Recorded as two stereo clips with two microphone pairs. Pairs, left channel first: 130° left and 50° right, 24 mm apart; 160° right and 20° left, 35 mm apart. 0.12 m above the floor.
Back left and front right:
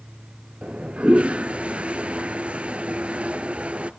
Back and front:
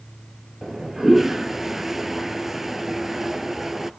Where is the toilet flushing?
55° right, 0.9 m.